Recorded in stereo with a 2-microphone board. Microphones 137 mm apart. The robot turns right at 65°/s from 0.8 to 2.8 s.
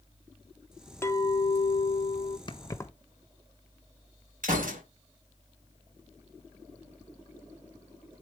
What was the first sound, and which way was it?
A clink, 25° left.